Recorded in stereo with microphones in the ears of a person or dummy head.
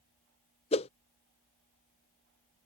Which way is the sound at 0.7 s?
30° left (ahead or behind).